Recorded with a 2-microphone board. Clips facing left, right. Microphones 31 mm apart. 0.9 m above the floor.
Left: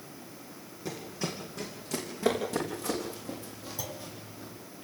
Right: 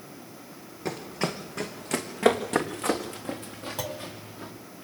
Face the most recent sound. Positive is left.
turn(degrees=-70)  # may be behind; listen again after turning